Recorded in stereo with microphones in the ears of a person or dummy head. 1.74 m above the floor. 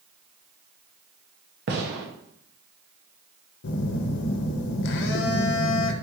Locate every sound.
1.7 s a gunshot: 55° right (ahead or behind), 0.9 m
3.6 s a phone buzzing: 65° left (ahead or behind), 0.6 m